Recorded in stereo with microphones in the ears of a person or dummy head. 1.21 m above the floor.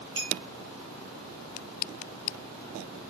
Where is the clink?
15° right (ahead or behind), 3 m.